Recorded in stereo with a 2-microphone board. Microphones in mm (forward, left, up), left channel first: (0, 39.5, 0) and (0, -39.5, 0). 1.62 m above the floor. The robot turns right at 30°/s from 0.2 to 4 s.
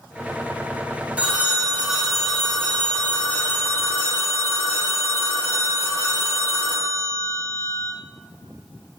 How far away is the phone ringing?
About 0.6 m.